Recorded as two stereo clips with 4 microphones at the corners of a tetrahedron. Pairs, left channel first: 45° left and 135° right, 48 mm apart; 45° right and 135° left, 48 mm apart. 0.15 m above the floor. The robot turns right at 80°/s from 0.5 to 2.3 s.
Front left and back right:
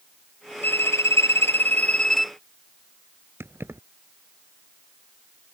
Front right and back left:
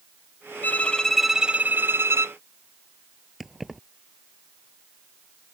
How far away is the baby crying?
No baby crying in this recording.